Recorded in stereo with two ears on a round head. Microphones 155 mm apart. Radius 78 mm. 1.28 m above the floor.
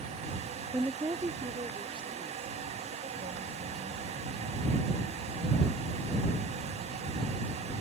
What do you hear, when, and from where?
0.7 s a woman speaking: 10° right (ahead or behind); by 7.7 s 40° right (ahead or behind)